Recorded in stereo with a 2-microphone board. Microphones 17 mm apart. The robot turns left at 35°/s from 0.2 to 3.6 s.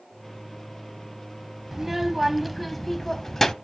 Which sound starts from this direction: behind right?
A child speaking, at 1.7 s.